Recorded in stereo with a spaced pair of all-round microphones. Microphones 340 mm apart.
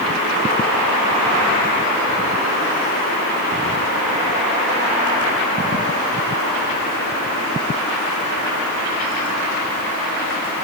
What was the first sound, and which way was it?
Only background noise.